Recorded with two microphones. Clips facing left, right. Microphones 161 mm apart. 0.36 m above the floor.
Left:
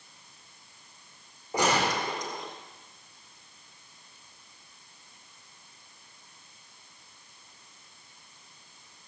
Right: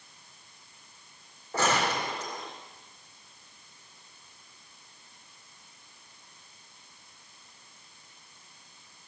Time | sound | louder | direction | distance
1.5 | a gunshot | left 1 dB | 15° left (ahead or behind) | 4 m